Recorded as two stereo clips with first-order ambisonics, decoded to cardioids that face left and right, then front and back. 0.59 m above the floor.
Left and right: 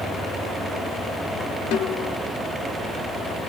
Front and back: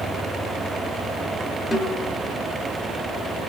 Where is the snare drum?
80° left, 1.4 m.